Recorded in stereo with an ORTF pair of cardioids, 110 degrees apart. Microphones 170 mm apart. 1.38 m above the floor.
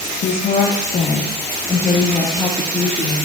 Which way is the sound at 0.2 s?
55° left.